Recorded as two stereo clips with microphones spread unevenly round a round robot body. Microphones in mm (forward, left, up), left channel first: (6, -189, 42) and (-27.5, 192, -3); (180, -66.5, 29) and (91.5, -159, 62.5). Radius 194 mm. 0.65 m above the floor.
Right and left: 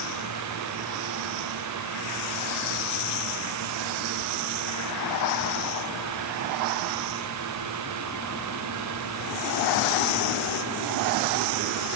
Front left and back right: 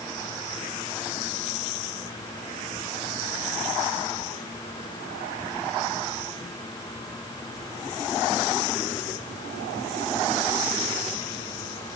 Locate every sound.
Only background noise.